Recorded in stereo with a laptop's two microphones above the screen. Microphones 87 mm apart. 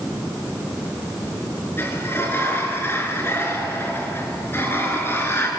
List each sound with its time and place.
1.8 s a sliding door: 30° left (ahead or behind), 4 m